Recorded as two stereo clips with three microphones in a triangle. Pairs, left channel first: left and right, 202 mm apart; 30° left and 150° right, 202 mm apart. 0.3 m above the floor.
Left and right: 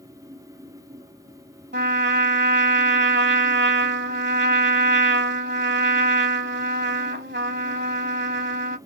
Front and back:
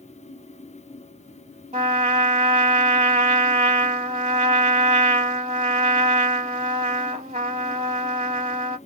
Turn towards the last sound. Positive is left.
turn(degrees=-95)